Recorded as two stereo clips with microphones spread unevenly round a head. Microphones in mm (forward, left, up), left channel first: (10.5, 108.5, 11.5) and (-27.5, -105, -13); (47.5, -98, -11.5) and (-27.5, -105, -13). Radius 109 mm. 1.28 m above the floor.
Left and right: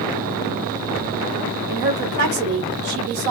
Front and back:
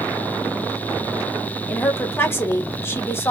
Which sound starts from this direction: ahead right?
A woman speaking, at 1.7 s.